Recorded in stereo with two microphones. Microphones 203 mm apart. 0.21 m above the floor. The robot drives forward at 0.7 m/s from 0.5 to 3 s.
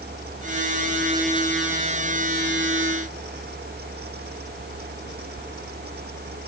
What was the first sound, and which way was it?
Only background noise.